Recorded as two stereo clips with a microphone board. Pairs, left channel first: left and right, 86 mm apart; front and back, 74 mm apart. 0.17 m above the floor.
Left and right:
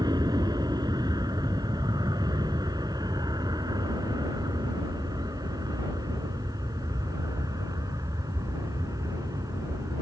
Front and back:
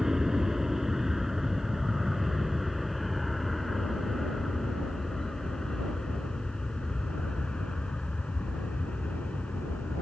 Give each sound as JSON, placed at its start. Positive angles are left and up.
{"t": 0.0, "sound": "an aircraft", "azimuth_deg": -95}